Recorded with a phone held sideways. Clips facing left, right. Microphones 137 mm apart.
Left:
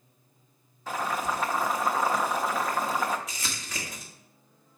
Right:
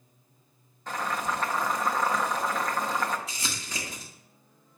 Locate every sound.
0.9 s boiling: 5° left (ahead or behind), 0.8 m
3.3 s crumpling: 30° right (ahead or behind), 1.7 m